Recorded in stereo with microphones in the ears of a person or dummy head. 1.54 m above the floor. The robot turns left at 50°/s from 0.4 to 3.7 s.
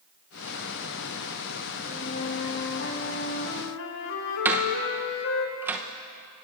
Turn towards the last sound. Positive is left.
turn(degrees=-15)  # may be behind; listen again after turning